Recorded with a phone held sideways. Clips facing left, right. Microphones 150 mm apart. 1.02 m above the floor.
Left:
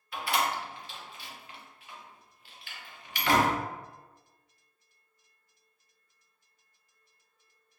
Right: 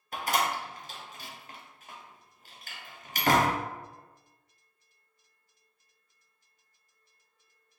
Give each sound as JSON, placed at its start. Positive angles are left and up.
{"t": 0.1, "sound": "a door slam", "side_deg": -45, "distance_m": 0.6}